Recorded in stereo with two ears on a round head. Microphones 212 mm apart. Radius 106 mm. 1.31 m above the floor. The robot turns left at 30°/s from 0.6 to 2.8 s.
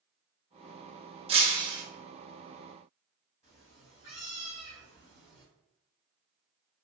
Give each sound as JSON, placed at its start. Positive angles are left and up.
{"t": 1.3, "sound": "breaking glass", "side_deg": -25, "distance_m": 0.5}
{"t": 3.4, "sound": "a cat meowing", "side_deg": 25, "distance_m": 1.2}